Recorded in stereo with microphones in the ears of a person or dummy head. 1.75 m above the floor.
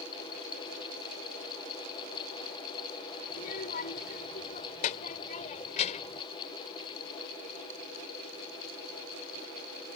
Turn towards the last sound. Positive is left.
turn(degrees=35)  # may be behind; listen again after turning